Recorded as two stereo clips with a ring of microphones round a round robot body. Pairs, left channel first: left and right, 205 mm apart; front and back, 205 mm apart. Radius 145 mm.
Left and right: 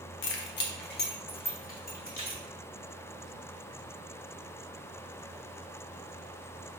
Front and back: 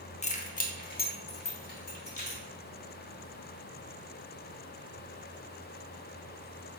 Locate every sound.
0.2 s keys jangling: 60° left, 0.7 m; by 2.4 s 40° left, 2 m